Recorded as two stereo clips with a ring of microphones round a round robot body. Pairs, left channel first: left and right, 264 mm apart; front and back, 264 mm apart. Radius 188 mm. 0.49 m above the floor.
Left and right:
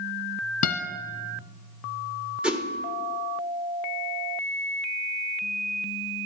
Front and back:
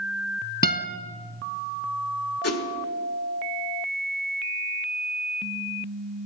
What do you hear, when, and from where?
0.6 s a guitar: 55° left, 1.1 m
2.4 s a whoosh: 5° right, 1.4 m